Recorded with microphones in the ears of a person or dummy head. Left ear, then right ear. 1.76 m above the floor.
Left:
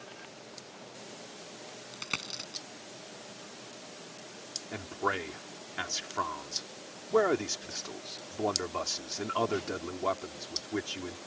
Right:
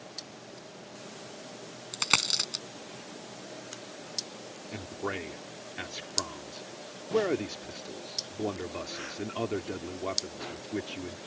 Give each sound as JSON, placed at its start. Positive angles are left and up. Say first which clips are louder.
{"t": 1.9, "sound": "a dropped coin", "louder": "right 11 dB", "side_deg": -25}
{"t": 4.7, "sound": "a man speaking", "louder": "left 3 dB", "side_deg": 45}